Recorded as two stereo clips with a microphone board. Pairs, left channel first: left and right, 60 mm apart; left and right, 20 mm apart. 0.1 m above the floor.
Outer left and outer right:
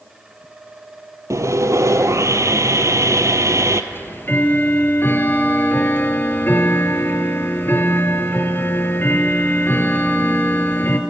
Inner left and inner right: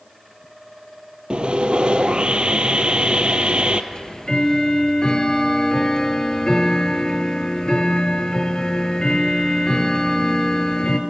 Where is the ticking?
35° left (ahead or behind), 1.9 m.